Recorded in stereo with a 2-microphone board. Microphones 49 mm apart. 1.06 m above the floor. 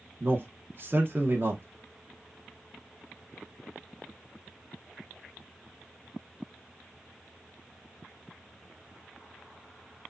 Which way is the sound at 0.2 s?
45° right (ahead or behind).